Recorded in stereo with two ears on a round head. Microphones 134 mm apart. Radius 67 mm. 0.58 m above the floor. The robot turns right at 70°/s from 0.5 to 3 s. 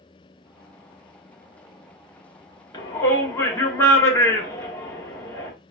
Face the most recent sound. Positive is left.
turn(degrees=20)  # may be behind; listen again after turning